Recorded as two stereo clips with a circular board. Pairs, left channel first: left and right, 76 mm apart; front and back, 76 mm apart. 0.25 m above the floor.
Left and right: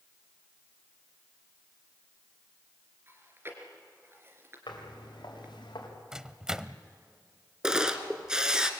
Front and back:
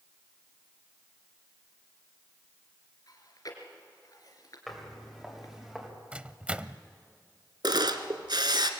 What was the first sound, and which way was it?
Chewing, 35° right.